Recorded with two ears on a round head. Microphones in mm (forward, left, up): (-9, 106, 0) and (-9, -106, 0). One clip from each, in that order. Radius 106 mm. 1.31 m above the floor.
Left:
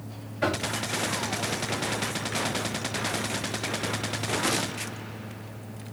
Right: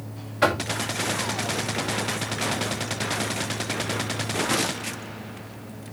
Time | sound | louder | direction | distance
0.4 | knocking | right 6 dB | 45° right (ahead or behind) | 2 m